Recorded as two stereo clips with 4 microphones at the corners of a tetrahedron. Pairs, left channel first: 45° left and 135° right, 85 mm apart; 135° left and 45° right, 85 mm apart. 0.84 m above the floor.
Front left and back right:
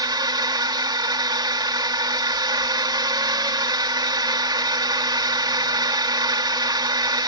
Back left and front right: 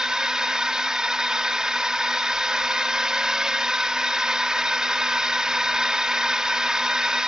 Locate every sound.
0.0 s a drone: 125° right